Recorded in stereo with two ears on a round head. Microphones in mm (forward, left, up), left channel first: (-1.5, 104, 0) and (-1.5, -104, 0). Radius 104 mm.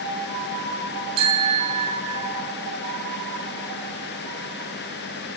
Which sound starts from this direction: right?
A bicycle bell, at 1.2 s.